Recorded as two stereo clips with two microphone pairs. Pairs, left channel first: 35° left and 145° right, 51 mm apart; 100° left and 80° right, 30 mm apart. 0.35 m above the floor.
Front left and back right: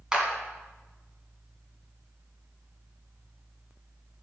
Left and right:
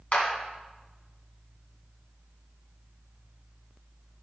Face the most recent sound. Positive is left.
turn(degrees=140)